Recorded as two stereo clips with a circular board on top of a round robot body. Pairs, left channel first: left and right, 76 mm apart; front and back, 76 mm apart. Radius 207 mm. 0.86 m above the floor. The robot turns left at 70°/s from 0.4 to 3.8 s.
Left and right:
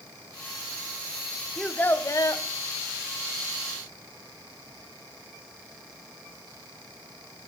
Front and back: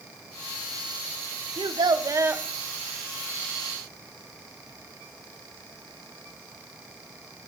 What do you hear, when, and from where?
1.6 s a child speaking: 175° left, 0.8 m; by 2.4 s 115° left, 0.8 m